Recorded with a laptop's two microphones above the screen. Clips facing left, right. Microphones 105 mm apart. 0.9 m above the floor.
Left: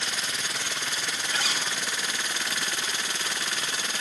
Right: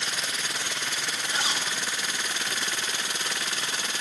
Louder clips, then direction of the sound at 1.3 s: Right 1 dB; 25° right (ahead or behind).